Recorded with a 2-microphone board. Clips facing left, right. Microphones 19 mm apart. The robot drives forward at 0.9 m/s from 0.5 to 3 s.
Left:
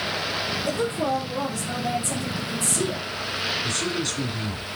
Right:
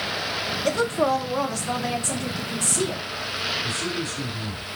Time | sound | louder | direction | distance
0.7 | a woman speaking | right 5 dB | 70° right (ahead or behind) | 1.9 m
3.6 | a man speaking | left 1 dB | 75° left (ahead or behind) | 2.5 m